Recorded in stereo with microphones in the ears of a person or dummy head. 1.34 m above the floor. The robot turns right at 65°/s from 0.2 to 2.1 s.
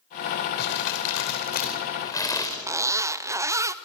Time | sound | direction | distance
0.6 | crumpling | 60° left | 3 m
2.7 | a zipper | 15° right (ahead or behind) | 0.6 m